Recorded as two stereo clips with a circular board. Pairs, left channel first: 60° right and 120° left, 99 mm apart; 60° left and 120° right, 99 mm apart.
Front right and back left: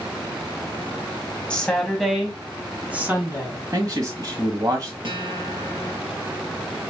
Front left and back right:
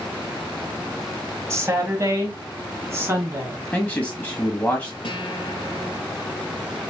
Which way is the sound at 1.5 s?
125° right.